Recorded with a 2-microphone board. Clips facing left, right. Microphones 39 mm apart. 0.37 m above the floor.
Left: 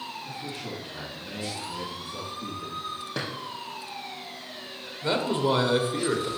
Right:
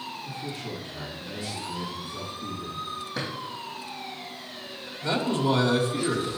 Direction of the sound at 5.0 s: 25° left (ahead or behind).